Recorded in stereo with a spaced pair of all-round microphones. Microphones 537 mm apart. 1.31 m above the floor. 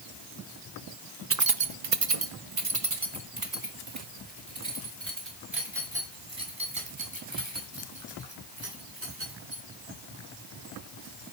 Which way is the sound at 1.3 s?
25° right (ahead or behind).